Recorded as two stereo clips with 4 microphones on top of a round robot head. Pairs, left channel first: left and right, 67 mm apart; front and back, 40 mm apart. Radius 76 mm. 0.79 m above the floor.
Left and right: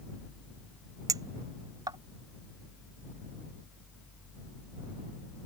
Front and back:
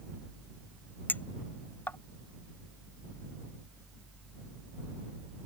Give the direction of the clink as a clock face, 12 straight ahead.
2 o'clock.